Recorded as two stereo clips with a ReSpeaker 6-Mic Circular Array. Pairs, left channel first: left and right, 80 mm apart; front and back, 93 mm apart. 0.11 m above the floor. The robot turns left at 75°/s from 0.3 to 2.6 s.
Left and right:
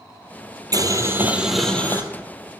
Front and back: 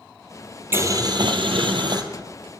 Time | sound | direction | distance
0.7 | boiling | 115° right | 0.9 m